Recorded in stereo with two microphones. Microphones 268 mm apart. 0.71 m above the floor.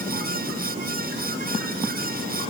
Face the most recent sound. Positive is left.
No sound to turn to.